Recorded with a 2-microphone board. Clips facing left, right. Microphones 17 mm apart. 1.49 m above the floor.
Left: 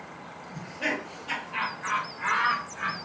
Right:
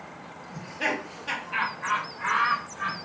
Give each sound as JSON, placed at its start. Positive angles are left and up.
{"t": 0.5, "sound": "laughter", "side_deg": -65, "distance_m": 1.1}